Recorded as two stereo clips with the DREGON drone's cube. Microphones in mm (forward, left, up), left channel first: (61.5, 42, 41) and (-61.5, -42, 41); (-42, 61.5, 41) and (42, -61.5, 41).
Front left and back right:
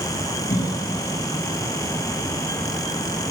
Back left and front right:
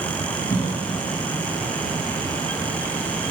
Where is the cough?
60° left, 7.5 m.